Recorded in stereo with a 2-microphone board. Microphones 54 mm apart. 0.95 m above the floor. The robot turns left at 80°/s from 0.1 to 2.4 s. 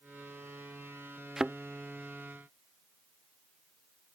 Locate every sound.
1.4 s a thud: 5° right (ahead or behind); by 1.6 s 20° right (ahead or behind)